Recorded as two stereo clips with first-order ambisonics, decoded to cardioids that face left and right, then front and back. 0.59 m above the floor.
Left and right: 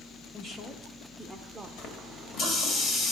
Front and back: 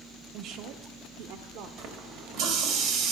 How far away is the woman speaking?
About 0.8 m.